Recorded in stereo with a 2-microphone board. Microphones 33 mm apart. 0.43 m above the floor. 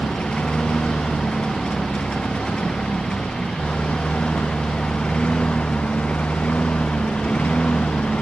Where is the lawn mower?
30° left (ahead or behind); by 8.2 s 40° left (ahead or behind).